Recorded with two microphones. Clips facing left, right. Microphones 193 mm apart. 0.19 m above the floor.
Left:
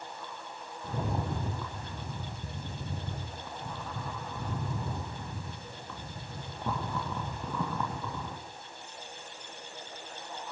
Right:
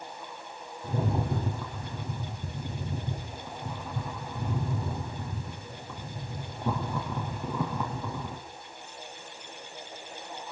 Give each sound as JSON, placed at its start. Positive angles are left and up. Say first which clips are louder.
{"t": 0.8, "sound": "a rattle", "louder": "right 4 dB", "side_deg": -15, "distance_m": 6.5}